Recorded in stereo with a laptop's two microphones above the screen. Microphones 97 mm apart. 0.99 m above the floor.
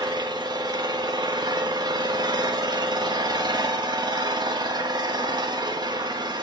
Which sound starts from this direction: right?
An engine running, at 0.0 s.